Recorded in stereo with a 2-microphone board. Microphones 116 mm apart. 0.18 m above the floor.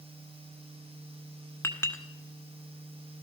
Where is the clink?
25° left (ahead or behind), 1.2 m.